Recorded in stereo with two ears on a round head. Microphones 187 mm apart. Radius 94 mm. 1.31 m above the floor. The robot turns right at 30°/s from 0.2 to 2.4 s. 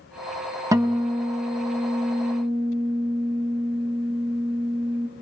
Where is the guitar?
160° right, 1.6 m; by 5.1 s 105° right, 1.6 m.